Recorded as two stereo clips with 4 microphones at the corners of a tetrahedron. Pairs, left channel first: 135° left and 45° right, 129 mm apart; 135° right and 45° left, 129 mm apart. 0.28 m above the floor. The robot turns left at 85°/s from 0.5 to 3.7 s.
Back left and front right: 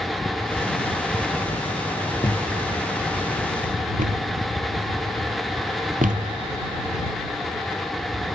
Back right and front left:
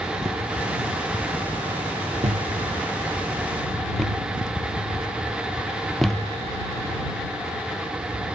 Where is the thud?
80° left; by 6.4 s 45° right.